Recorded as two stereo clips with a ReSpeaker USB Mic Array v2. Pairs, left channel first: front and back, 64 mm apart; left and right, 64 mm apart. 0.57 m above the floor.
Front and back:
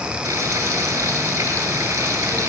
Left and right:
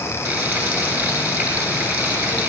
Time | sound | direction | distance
0.2 | frying | 140° right | 7.5 m